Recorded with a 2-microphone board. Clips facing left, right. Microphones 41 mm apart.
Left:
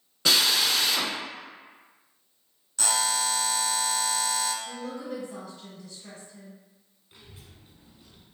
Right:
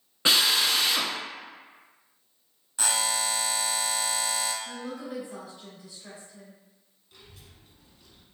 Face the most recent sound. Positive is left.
turn(degrees=25)  # may be behind; listen again after turning